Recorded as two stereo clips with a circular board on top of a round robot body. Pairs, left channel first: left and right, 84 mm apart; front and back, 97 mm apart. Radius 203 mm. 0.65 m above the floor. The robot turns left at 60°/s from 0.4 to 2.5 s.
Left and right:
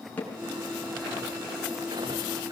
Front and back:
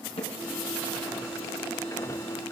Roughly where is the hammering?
Ahead.